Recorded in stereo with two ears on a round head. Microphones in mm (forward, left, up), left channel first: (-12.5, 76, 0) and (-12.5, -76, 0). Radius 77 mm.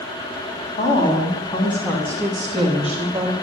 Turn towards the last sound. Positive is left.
turn(degrees=-25)  # may be behind; listen again after turning